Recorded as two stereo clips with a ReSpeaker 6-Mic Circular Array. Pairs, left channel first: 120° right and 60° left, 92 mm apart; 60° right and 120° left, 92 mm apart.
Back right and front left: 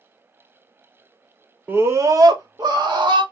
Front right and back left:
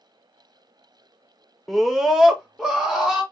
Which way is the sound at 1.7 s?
30° left.